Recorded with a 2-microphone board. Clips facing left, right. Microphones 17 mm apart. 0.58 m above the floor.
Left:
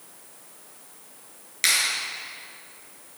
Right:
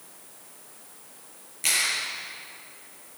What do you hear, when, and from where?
1.6 s a clap: 75° left (ahead or behind), 6 m